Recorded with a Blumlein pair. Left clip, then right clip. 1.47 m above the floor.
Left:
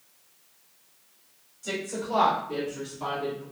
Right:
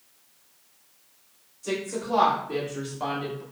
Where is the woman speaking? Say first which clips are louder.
Right 2 dB; 5° left, 1.7 m; by 3.4 s 45° right, 1.7 m.